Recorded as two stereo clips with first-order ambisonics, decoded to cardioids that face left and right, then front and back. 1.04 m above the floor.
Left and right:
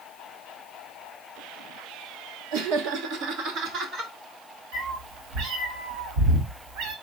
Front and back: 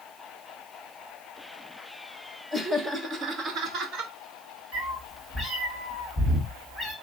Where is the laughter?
90° right, 1.0 m; by 4.1 s 140° right, 1.7 m.